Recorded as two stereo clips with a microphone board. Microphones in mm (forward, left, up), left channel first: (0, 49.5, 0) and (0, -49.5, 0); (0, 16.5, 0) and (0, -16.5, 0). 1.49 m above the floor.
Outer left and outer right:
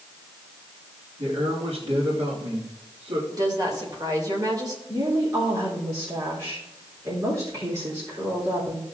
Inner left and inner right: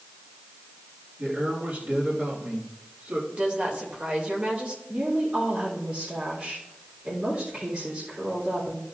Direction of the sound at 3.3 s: 40° right (ahead or behind).